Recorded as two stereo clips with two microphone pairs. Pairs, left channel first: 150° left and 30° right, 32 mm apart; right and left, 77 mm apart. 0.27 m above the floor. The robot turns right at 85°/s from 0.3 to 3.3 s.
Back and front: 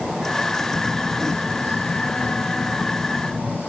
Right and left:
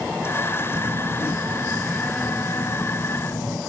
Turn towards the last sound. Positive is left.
turn(degrees=-75)